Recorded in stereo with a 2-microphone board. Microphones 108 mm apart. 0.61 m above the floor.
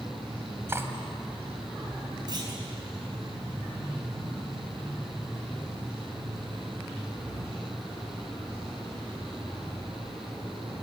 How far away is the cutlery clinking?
About 2.0 m.